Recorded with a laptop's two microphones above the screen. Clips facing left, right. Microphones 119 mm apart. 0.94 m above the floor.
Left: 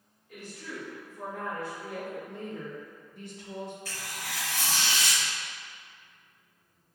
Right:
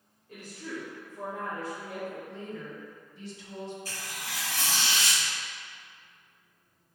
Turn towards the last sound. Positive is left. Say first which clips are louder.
# left 1 dB
turn(degrees=-35)  # may be behind; listen again after turning